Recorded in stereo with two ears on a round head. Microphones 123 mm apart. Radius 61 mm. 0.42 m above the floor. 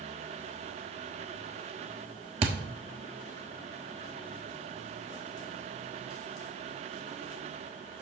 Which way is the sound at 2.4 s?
45° right (ahead or behind).